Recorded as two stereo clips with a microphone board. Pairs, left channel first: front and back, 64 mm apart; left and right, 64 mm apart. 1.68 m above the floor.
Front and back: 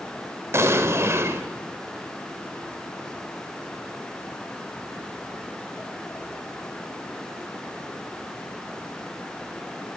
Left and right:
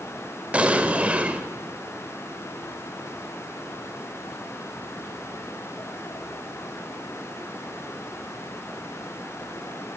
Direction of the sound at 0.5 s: 150° right.